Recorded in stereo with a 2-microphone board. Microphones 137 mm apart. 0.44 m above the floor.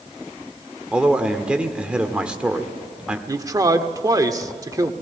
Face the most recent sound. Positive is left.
turn(degrees=-25)  # may be behind; listen again after turning